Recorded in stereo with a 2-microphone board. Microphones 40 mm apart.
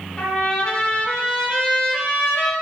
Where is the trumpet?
25° left (ahead or behind), 0.7 m.